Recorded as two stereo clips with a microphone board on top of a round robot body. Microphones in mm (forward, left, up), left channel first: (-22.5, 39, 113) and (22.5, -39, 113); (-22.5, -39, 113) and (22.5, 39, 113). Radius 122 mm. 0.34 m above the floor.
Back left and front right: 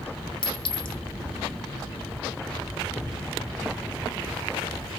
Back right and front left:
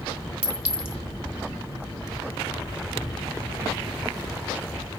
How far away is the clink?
About 1.4 m.